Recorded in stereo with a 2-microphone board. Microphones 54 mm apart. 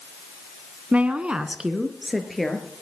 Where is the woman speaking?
25° right (ahead or behind), 1.2 m; by 2.7 s 5° left (ahead or behind), 3 m.